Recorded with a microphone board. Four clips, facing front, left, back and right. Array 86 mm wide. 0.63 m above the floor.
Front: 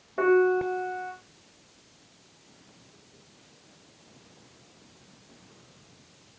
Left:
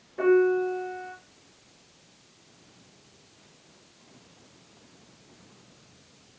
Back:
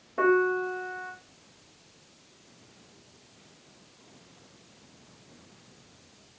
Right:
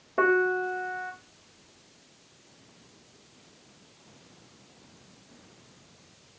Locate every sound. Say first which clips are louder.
0.2 s a piano: left 3 dB, front 2 dB; 90° right, 0.7 m